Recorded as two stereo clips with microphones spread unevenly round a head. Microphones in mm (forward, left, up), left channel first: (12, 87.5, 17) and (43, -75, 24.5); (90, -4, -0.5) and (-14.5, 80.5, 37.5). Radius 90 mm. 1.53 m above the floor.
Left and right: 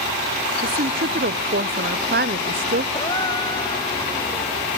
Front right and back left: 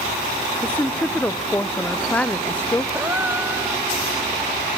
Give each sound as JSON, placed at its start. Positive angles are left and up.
{"t": 0.6, "sound": "a woman speaking", "azimuth_deg": -125, "distance_m": 0.6}
{"t": 2.9, "sound": "a gasp", "azimuth_deg": 155, "distance_m": 1.1}